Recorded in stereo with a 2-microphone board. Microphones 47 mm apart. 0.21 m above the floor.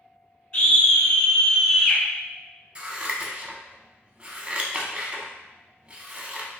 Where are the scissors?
25° right (ahead or behind), 0.5 m.